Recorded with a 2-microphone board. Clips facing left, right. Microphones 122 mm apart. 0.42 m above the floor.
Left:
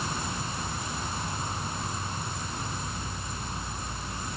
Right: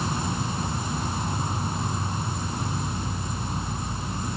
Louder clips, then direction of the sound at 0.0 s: Right 5 dB; 25° right (ahead or behind).